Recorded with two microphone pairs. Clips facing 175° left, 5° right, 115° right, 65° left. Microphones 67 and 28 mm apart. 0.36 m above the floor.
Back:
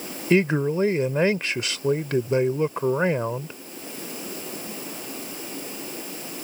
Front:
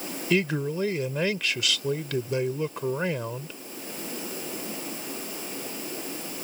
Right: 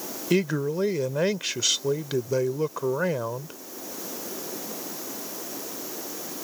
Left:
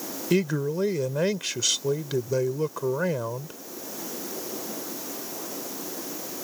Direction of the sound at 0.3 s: 165° left.